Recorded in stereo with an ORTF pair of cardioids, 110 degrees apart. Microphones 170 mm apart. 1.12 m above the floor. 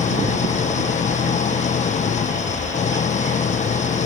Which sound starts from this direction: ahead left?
An engine running, at 0.0 s.